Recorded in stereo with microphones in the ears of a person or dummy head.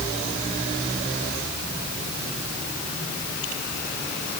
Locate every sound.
Only background noise.